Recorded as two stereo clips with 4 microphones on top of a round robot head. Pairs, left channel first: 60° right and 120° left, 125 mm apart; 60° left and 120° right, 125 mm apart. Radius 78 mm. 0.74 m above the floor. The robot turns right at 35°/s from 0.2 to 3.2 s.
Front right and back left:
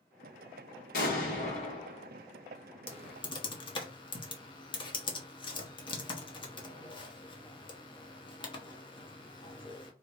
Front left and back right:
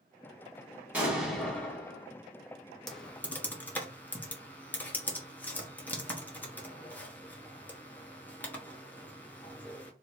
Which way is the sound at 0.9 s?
45° right.